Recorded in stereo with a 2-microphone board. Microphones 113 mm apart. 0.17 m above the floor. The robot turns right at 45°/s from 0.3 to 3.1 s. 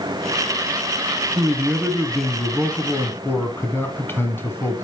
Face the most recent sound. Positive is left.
turn(degrees=40)